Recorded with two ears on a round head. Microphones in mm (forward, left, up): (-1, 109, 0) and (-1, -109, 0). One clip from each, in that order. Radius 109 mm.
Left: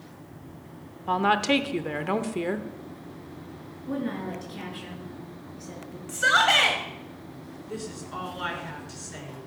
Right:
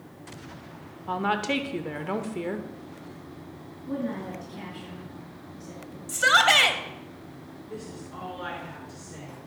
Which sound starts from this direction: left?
A woman speaking, at 7.7 s.